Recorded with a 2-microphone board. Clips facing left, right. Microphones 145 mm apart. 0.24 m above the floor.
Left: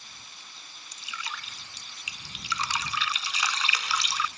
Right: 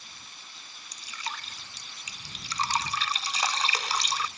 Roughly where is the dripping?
Right.